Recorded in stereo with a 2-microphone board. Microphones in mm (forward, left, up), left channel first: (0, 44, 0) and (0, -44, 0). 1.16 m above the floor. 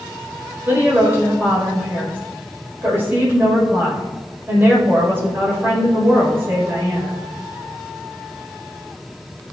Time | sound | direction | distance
0.7 | a woman speaking | 25° right (ahead or behind) | 4 m